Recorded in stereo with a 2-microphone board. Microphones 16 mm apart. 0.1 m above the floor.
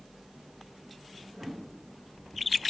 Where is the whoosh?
65° right (ahead or behind), 6 m.